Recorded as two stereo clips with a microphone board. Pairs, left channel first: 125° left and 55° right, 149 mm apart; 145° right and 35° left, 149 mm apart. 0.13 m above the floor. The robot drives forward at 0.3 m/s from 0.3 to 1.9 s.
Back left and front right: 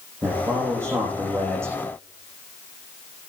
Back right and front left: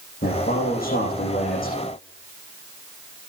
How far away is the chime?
No chime in this recording.